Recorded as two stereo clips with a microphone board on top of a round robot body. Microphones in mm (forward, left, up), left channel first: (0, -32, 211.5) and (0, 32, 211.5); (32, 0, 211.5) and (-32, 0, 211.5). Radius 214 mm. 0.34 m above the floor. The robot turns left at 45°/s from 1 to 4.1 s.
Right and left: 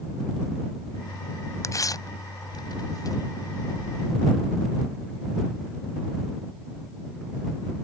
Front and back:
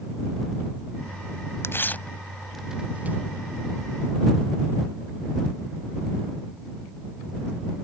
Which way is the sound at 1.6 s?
50° right.